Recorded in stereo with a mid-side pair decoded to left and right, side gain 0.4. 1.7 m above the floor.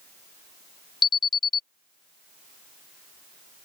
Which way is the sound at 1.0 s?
50° left.